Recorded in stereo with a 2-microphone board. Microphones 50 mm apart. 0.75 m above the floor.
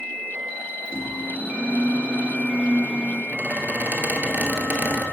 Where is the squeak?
40° right (ahead or behind), 1.0 m.